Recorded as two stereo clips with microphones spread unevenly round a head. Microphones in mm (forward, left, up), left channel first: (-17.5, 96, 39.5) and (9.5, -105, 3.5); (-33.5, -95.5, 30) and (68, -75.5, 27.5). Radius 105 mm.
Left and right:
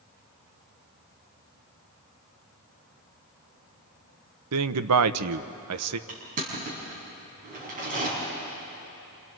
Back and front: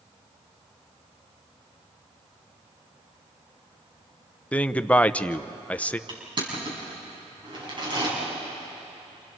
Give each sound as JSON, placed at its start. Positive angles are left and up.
{"t": 4.5, "sound": "a man speaking", "azimuth_deg": -95, "distance_m": 0.8}
{"t": 6.1, "sound": "crushing", "azimuth_deg": -25, "distance_m": 6.0}